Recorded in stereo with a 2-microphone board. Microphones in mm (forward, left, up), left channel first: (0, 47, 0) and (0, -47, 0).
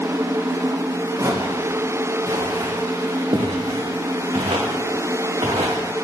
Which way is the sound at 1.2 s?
40° right (ahead or behind).